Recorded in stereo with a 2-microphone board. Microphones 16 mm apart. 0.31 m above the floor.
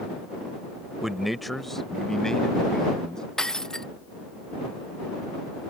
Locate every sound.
1.0 s a man speaking: 20° right (ahead or behind); by 3.2 s 50° left (ahead or behind)
3.4 s breaking glass: 45° left (ahead or behind)